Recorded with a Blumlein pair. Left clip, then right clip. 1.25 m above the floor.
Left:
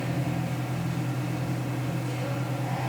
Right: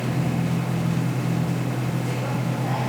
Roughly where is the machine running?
Ahead right.